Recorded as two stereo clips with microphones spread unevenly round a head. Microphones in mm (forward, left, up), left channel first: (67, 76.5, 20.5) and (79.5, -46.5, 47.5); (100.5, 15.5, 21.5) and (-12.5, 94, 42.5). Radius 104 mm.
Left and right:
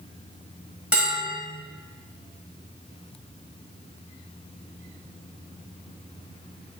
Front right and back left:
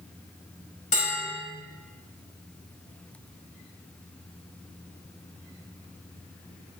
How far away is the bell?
About 4.5 m.